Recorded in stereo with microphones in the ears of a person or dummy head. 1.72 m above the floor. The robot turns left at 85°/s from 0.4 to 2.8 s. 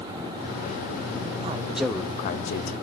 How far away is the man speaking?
About 0.8 m.